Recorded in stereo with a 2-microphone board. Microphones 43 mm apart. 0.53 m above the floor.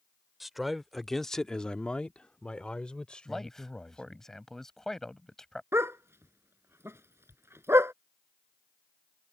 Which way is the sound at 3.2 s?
10° left (ahead or behind).